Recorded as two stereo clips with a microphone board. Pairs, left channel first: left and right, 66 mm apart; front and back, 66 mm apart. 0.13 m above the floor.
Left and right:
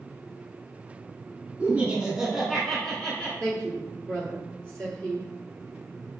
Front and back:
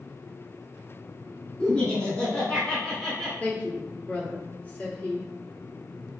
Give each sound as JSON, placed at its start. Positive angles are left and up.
{"t": 1.6, "sound": "laughter", "azimuth_deg": -55, "distance_m": 1.2}
{"t": 3.4, "sound": "a woman speaking", "azimuth_deg": 40, "distance_m": 1.6}